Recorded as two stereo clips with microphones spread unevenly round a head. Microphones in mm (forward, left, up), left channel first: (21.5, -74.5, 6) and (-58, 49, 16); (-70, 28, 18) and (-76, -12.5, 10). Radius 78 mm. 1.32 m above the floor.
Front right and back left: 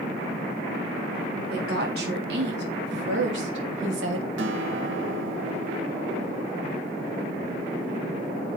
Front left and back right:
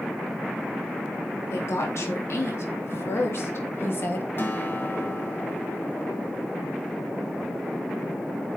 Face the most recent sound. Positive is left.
turn(degrees=115)